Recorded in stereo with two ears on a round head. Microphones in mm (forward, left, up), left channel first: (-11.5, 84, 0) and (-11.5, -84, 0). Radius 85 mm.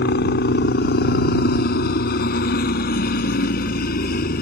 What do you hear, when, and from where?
0.0 s a helicopter: 55° left (ahead or behind); by 4.4 s 50° left (ahead or behind)